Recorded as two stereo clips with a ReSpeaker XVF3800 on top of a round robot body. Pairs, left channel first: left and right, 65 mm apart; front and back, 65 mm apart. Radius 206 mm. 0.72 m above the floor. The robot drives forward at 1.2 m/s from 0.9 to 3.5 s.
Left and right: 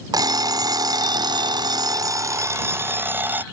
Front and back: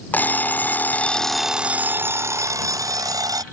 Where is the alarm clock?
65° right; by 3.4 s 155° right.